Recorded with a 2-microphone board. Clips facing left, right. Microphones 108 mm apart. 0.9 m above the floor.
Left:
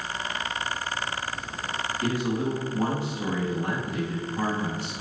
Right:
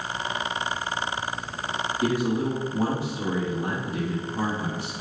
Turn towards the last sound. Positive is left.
turn(degrees=-25)  # may be behind; listen again after turning